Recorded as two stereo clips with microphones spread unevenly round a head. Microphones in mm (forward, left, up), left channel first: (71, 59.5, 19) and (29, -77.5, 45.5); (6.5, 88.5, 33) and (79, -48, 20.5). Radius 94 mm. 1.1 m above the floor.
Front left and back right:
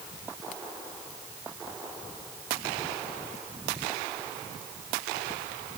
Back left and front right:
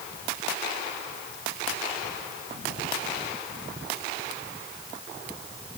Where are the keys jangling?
I don't hear keys jangling.